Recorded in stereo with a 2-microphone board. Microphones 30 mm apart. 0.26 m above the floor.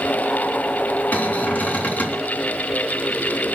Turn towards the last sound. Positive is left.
turn(degrees=50)  # may be behind; listen again after turning